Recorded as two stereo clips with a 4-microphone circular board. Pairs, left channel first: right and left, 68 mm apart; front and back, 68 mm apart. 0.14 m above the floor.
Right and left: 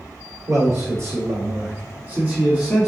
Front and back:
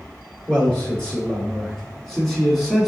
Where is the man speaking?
70° left, 2.0 m; by 2.9 s 115° left, 1.1 m.